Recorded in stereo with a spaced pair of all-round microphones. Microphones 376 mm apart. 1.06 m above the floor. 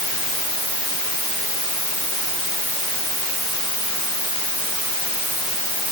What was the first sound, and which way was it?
Only background noise.